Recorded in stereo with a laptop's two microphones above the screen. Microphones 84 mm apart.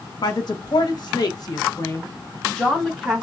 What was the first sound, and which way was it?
A woman speaking, 60° left (ahead or behind).